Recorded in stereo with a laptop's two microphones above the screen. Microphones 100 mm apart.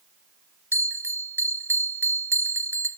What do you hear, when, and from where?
0.7 s a bell: 25° right (ahead or behind), 0.6 m